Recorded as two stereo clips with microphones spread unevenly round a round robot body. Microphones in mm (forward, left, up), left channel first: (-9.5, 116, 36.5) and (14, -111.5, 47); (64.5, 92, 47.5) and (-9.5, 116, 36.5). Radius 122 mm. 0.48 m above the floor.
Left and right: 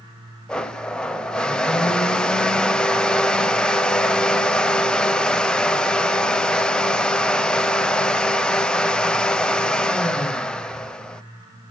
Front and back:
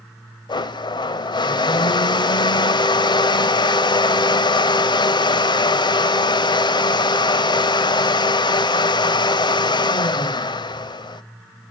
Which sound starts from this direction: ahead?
A blender, at 0.5 s.